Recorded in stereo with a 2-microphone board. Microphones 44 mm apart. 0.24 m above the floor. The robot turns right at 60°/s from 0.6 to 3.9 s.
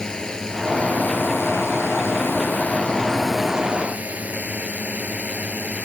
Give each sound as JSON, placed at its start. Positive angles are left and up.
{"t": 0.0, "sound": "a drone", "azimuth_deg": 15}